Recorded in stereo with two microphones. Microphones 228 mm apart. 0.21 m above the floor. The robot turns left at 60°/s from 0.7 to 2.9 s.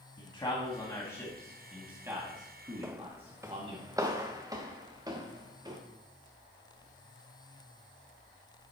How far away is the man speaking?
About 1.6 m.